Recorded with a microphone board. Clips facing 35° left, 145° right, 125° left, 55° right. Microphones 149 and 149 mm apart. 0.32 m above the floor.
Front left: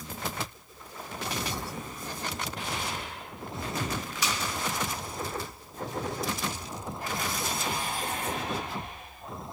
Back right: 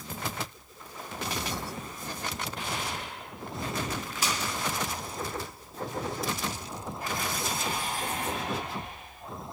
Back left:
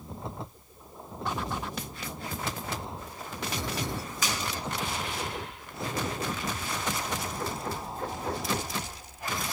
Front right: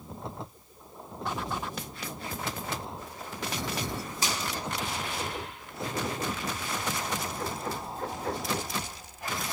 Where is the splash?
110° right, 1.1 m.